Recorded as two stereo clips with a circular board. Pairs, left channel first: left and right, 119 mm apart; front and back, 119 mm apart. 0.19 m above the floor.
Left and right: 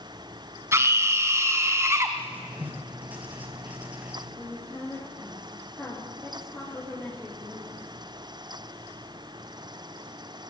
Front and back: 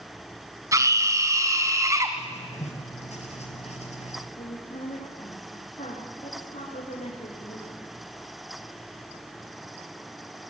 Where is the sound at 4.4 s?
15° left, 8.5 m.